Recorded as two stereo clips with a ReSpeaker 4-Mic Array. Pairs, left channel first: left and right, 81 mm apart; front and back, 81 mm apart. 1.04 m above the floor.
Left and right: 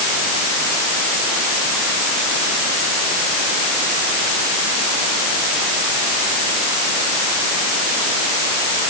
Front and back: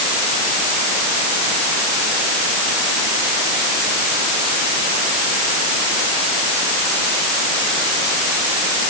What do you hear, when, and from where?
Only background noise.